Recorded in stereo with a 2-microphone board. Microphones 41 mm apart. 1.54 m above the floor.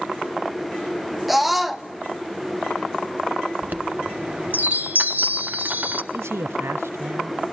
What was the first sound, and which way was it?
A scream, centre (ahead or behind).